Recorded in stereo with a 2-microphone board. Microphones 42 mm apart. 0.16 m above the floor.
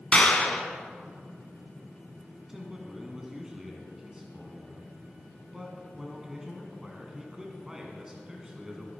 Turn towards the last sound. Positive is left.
turn(degrees=-10)  # may be behind; listen again after turning